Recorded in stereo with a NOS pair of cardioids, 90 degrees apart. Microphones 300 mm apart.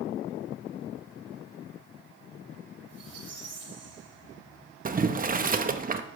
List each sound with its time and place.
2.9 s a squeak: 60° right, 2 m
4.8 s boiling: 30° right, 0.8 m